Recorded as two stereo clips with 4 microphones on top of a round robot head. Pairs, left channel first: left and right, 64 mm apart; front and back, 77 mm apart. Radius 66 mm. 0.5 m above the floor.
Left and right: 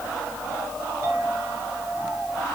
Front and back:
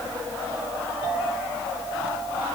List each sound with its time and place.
1.0 s a clink: 115° right, 8 m